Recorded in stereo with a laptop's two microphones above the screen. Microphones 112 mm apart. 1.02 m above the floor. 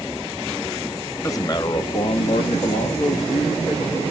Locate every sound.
1.2 s a man speaking: 30° left (ahead or behind), 2 m; by 4.1 s 65° left (ahead or behind), 3.5 m